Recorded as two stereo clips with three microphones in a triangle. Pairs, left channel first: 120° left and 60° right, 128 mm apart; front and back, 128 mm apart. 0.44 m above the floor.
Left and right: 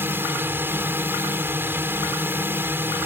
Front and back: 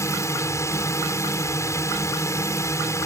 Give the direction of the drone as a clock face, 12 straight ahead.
1 o'clock.